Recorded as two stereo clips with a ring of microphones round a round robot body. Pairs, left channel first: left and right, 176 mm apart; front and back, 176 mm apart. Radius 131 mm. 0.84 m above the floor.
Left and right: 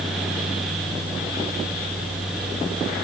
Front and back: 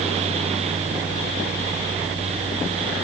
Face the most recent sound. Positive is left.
No sound to turn to.